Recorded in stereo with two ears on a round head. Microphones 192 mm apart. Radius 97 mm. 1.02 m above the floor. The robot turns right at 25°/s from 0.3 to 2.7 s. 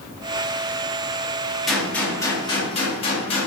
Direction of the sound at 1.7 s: Centre (ahead or behind).